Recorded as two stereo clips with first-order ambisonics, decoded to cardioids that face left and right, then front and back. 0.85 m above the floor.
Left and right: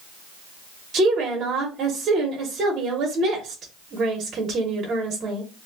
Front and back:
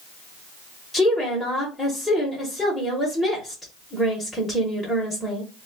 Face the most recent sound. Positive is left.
turn(degrees=-80)